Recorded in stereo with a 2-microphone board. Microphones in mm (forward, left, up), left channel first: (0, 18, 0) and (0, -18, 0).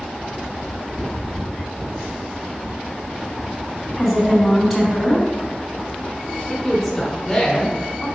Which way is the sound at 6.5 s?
10° left (ahead or behind).